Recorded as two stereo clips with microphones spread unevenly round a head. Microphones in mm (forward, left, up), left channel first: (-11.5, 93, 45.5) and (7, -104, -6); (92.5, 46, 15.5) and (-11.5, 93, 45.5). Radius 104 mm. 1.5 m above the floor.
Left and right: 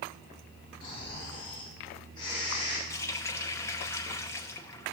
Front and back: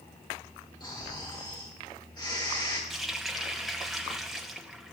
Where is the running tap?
105° left, 0.6 m.